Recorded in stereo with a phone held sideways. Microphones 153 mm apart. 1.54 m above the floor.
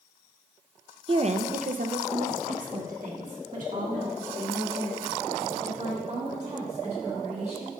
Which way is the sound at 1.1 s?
35° right (ahead or behind).